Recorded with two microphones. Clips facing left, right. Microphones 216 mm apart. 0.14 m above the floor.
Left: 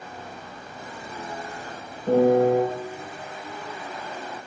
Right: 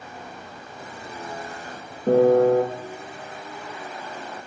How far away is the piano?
About 2.5 m.